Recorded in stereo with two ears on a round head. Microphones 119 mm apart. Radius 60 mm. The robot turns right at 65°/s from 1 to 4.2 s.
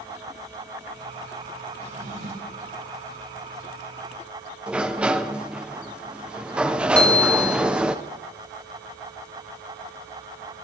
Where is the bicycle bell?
10° left (ahead or behind), 5 m.